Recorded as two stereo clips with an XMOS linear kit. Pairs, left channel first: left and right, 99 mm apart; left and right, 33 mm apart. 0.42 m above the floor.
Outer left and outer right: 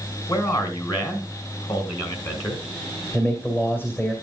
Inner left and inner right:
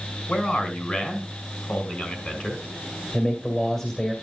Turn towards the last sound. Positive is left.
turn(degrees=20)  # may be behind; listen again after turning